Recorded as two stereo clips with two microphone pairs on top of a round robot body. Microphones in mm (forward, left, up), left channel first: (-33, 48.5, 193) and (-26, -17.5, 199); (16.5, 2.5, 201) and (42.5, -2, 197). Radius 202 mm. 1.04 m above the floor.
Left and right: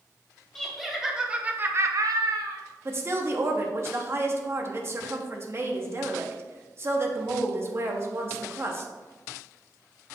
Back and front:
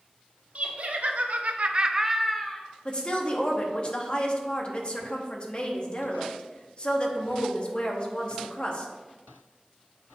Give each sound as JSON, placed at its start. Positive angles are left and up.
{"t": 0.6, "sound": "laughter", "azimuth_deg": 10, "distance_m": 1.9}
{"t": 2.9, "sound": "a woman speaking", "azimuth_deg": -135, "distance_m": 1.3}